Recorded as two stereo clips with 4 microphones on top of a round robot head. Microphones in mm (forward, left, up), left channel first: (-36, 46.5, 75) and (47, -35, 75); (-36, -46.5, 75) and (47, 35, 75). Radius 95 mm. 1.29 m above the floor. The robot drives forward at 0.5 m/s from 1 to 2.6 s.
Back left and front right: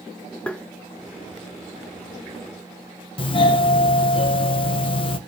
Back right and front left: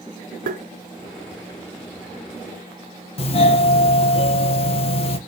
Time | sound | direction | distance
0.5 | tapping | 55° left | 0.6 m
3.2 | a doorbell | 175° right | 1.2 m